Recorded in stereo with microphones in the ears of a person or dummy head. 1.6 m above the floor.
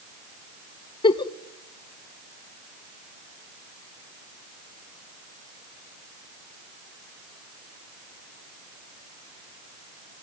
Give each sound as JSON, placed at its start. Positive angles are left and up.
{"t": 1.0, "sound": "a giggle", "side_deg": 25, "distance_m": 0.8}